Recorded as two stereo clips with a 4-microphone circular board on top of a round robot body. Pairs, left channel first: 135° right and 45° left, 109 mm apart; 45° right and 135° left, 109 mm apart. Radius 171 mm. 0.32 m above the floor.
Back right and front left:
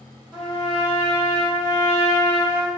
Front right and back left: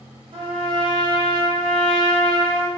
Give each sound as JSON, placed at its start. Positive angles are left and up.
{"t": 0.3, "sound": "a trumpet", "azimuth_deg": 125, "distance_m": 1.9}